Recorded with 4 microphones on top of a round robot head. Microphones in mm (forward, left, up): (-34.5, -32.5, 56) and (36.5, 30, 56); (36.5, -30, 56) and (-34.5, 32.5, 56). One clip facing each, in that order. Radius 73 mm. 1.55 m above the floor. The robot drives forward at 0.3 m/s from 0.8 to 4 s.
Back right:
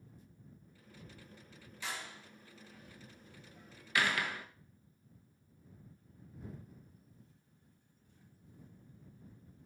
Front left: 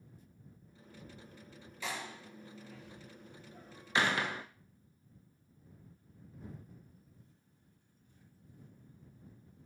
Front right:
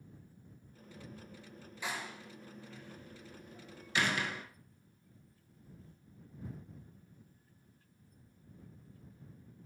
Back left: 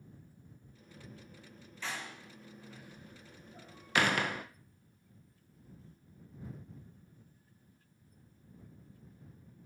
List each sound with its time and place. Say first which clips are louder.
1.8 s a door slam: front left 3 dB, front right 1 dB; 35° left, 0.9 m; by 4.5 s 105° left, 0.7 m